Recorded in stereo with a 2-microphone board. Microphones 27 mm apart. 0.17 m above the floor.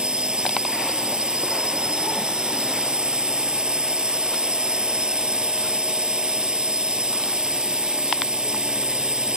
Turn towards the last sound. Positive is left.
turn(degrees=-40)  # may be behind; listen again after turning